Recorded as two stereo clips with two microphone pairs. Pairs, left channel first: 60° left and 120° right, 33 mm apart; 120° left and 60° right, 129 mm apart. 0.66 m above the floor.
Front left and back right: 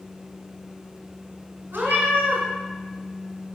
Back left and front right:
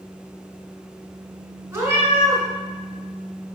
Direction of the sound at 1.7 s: 130° right.